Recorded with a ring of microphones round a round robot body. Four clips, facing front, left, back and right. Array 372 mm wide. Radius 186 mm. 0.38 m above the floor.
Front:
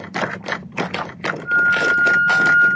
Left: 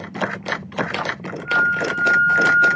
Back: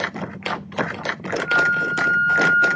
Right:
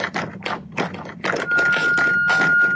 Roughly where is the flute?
Behind right.